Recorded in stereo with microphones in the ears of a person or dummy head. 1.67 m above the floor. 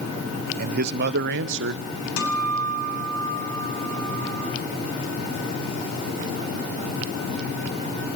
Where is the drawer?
No drawer in this recording.